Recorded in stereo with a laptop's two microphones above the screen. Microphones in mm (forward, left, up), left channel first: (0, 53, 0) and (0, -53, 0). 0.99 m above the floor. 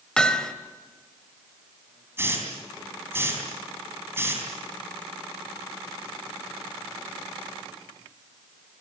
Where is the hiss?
20° right (ahead or behind), 3.5 m.